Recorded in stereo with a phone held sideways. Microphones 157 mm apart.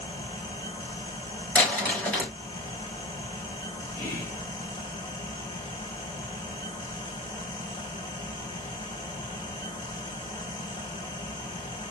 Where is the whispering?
25° left (ahead or behind), 1.7 m.